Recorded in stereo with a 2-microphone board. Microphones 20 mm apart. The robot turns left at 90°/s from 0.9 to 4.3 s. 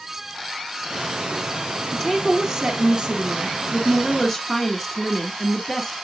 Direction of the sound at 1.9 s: 45° left.